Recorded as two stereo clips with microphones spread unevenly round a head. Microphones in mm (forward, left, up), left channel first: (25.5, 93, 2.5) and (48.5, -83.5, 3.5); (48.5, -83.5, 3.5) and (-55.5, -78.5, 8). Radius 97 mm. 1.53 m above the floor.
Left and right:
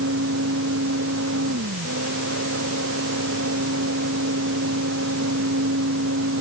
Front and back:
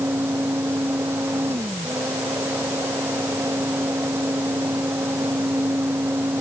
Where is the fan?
115° right.